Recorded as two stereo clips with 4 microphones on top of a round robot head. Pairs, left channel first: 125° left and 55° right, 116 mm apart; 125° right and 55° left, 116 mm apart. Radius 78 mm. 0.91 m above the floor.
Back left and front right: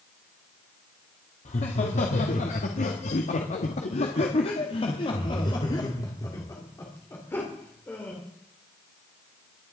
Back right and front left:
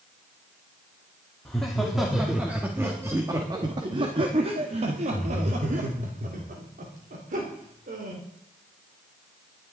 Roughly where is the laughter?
Behind left.